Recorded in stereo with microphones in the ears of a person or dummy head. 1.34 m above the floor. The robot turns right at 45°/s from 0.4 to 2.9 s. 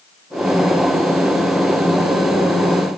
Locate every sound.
Only background noise.